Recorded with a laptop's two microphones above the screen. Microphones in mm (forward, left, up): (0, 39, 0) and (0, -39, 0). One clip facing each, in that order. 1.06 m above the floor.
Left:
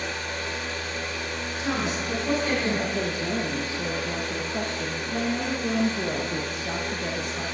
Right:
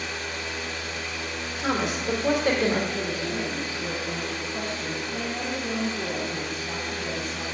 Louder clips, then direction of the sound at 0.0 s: Left 2 dB; 45° left (ahead or behind).